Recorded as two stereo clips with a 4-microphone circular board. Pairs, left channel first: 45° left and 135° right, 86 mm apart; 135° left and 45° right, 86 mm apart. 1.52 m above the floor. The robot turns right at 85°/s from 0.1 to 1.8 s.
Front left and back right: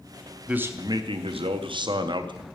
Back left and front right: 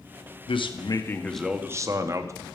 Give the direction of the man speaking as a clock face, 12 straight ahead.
7 o'clock.